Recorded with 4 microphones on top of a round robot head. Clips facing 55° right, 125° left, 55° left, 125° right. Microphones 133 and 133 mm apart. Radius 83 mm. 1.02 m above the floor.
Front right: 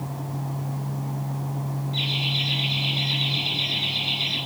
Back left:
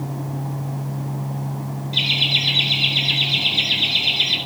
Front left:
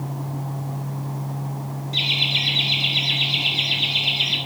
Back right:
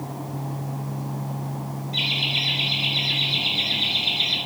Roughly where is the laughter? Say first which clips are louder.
Back left 2 dB, front left 1 dB; behind left.